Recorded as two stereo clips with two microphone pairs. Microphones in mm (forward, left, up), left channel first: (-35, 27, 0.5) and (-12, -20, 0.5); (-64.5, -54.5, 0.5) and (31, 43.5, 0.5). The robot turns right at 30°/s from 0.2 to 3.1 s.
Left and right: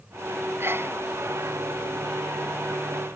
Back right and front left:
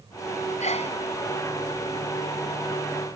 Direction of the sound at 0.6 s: 105° right.